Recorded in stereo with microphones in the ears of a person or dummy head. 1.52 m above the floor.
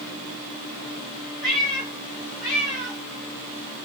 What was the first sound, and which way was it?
A cat meowing, centre (ahead or behind).